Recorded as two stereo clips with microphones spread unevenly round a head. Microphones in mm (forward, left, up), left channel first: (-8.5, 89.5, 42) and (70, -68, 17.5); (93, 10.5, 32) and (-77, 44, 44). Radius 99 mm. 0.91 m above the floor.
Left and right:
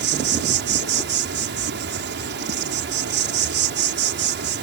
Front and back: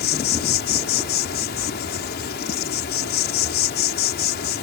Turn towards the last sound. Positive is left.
turn(degrees=-45)